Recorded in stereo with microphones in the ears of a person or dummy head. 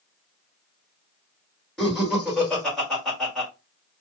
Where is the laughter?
Centre (ahead or behind), 1.5 m.